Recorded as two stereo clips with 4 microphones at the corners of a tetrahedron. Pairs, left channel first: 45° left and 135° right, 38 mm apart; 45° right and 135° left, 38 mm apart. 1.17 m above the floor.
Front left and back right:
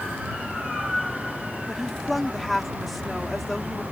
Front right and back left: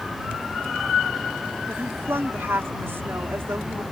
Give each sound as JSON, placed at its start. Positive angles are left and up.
{"t": 1.7, "sound": "a woman speaking", "azimuth_deg": 130}